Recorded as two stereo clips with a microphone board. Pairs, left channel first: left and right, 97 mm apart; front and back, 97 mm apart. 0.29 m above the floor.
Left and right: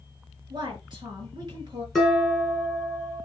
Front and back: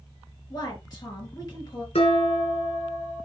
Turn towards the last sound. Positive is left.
turn(degrees=-5)